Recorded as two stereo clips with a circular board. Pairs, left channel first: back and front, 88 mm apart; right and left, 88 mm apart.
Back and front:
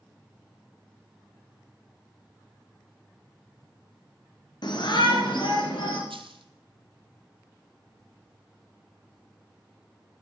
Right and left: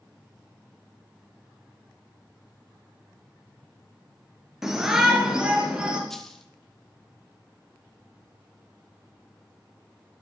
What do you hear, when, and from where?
4.6 s a shout: 175° left, 2 m; by 6.0 s 165° left, 3 m
6.1 s a dropped coin: 5° right, 0.8 m